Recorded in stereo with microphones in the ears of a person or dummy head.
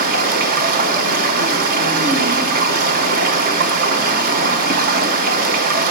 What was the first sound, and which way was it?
Running water, 55° right (ahead or behind).